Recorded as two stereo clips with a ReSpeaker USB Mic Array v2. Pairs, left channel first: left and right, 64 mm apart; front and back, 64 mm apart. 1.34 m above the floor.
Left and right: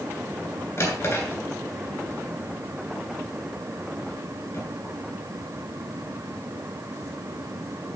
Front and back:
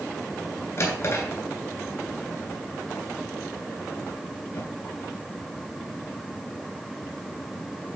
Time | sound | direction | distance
0.8 | a drawer | 35° left | 3 m